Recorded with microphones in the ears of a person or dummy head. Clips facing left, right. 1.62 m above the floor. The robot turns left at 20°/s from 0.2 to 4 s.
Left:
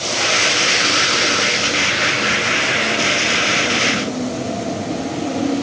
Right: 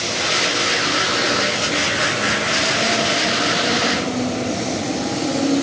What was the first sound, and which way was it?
Only background noise.